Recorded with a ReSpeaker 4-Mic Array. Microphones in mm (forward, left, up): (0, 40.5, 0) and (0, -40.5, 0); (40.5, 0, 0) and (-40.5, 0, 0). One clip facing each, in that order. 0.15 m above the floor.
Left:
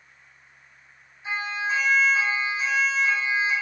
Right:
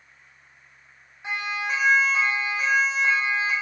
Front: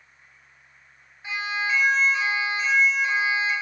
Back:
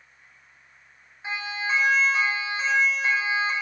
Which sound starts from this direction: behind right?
A siren, at 1.2 s.